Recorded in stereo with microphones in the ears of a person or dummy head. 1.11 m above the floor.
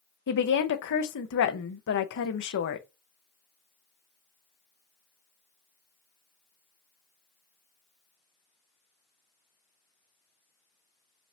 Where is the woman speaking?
60° left (ahead or behind), 0.7 m.